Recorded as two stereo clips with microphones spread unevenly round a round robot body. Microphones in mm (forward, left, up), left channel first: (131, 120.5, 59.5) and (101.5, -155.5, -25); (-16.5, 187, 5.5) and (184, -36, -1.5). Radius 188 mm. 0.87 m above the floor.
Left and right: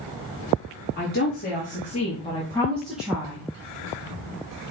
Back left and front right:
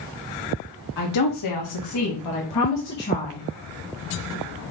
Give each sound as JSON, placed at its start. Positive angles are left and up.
{"t": 1.0, "sound": "a woman speaking", "azimuth_deg": 150, "distance_m": 1.8}